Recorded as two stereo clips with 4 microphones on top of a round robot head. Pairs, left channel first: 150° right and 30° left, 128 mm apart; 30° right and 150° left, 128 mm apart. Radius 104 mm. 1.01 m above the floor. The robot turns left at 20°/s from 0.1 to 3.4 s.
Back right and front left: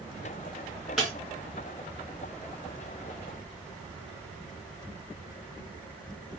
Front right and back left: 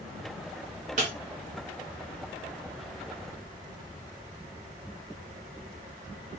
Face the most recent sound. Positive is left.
turn(degrees=70)